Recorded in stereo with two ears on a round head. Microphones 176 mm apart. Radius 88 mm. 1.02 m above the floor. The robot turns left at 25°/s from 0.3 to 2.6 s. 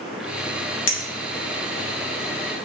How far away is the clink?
About 0.6 m.